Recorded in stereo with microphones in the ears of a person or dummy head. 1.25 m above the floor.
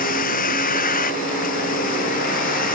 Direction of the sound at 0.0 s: 45° left (ahead or behind).